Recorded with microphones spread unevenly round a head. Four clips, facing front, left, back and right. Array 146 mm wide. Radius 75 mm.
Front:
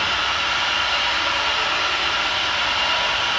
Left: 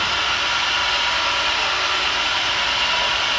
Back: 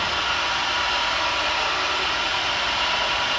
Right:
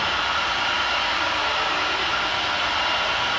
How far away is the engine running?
About 1.9 m.